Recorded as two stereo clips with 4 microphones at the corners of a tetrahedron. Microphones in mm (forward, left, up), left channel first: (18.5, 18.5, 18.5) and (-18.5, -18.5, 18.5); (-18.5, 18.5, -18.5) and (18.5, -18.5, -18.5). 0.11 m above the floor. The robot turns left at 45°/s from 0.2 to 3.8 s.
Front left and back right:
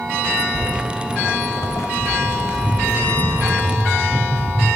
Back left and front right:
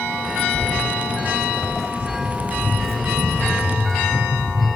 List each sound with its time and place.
0.5 s footsteps: 175° right, 0.6 m; by 4.7 s 55° right, 4 m